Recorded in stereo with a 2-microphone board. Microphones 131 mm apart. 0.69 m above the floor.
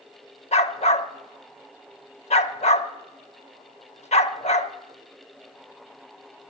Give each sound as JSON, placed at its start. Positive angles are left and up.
{"t": 0.5, "sound": "a dog barking", "side_deg": 65, "distance_m": 0.7}